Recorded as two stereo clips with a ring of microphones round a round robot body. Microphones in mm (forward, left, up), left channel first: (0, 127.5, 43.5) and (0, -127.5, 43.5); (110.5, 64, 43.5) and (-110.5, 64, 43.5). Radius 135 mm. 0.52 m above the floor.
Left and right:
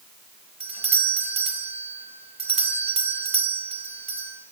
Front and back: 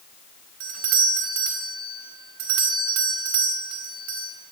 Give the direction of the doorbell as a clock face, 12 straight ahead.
5 o'clock.